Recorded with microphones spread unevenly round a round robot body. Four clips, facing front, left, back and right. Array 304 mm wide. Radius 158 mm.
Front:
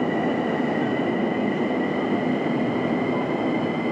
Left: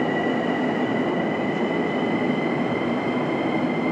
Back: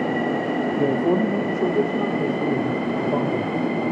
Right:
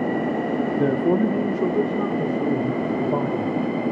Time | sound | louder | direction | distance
0.8 | a man speaking | right 3 dB, back 3 dB | 125° right | 1.8 m